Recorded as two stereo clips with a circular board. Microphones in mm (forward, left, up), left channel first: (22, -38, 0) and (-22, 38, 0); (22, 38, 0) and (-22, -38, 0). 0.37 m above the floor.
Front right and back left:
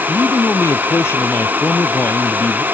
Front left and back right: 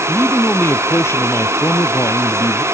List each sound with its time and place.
0.1 s a man speaking: 5° right; by 2.6 s 10° left